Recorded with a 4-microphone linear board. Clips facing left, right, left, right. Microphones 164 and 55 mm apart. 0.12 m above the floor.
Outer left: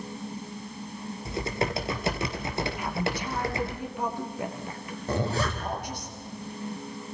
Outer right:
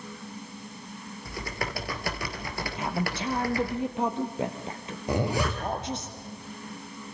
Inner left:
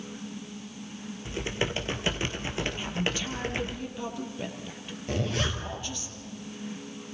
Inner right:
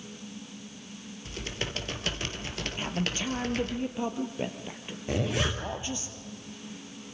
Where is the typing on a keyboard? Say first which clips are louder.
Outer left 6 dB, inner left 5 dB; 25° left (ahead or behind), 2 m.